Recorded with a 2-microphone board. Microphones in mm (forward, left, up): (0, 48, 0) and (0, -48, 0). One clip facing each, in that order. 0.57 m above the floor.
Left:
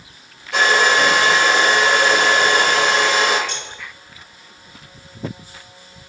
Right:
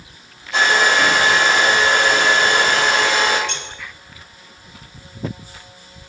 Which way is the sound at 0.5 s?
60° left (ahead or behind).